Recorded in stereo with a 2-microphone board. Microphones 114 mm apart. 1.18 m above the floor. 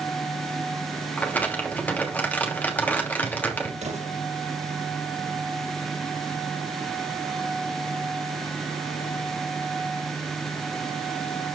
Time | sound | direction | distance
1.2 | crumpling | 15° left (ahead or behind) | 2.5 m
3.8 | an explosion | 80° right | 6 m